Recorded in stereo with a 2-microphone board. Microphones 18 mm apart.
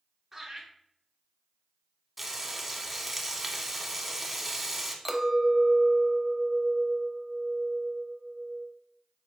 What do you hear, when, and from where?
0.3 s laughter: 10° right (ahead or behind), 1.8 m
2.2 s frying: 10° right (ahead or behind), 0.7 m
5.0 s a clink: 5° right (ahead or behind), 0.6 m